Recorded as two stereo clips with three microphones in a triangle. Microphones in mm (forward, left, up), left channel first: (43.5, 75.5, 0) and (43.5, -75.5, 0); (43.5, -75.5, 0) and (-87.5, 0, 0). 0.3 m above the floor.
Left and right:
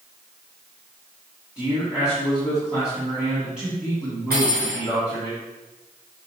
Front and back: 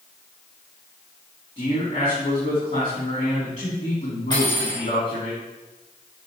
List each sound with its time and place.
1.6 s a man speaking: 5° right, 3 m
4.3 s cutlery clinking: 90° right, 3 m